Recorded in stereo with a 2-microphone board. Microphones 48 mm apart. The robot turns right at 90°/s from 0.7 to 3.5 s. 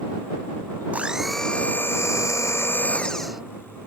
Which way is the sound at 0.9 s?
30° right.